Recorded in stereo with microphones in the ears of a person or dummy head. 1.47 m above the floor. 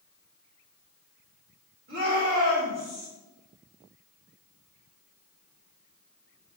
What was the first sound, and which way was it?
A shout, 45° right (ahead or behind).